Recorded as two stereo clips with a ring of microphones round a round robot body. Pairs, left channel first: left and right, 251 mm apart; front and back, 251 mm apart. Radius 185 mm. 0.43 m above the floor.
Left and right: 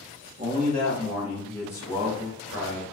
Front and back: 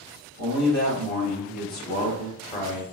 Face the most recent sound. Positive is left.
turn(degrees=60)